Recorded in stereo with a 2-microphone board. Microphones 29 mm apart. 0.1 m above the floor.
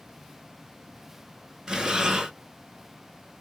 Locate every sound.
1.7 s breathing: 25° right (ahead or behind), 0.7 m